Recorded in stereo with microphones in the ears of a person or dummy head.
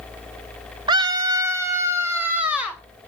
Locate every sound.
0.9 s a scream: 25° right (ahead or behind), 0.8 m; by 2.8 s 10° right (ahead or behind), 2.5 m